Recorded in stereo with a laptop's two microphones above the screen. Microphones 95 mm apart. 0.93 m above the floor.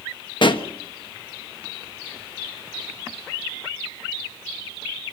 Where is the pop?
55° left (ahead or behind), 1.3 m.